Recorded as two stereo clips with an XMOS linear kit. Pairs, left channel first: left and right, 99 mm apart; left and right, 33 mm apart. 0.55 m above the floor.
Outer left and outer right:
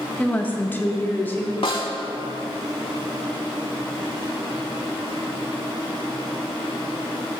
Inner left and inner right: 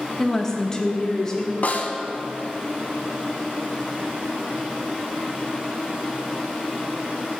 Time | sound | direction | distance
0.2 | a woman speaking | 10° left (ahead or behind) | 0.6 m
1.6 | a snare drum | 60° left (ahead or behind) | 0.7 m